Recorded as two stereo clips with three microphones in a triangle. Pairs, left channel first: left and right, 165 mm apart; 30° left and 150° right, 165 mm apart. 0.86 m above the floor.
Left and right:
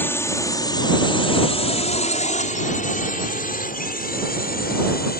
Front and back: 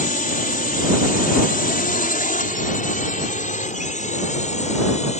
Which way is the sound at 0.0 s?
15° left.